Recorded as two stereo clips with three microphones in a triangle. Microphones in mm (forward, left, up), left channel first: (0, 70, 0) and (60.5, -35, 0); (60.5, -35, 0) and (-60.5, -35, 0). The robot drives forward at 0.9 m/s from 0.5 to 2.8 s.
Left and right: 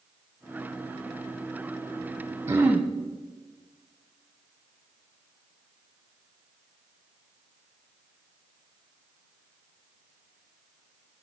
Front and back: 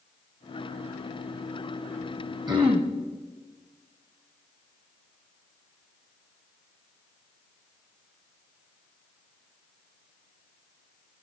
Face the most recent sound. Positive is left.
turn(degrees=-145)